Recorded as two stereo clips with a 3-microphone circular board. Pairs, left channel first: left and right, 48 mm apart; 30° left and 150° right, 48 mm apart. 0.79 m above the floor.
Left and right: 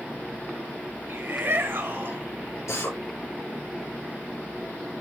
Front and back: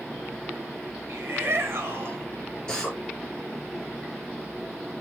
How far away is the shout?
About 4 m.